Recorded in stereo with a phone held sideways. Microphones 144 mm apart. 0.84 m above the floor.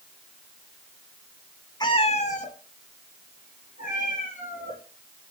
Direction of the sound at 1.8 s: 30° left (ahead or behind).